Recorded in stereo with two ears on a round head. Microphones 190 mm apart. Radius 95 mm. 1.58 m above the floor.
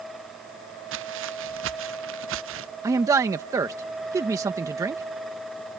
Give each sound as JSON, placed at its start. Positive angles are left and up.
{"t": 0.9, "sound": "footsteps", "side_deg": -65}
{"t": 2.8, "sound": "a man speaking", "side_deg": -15}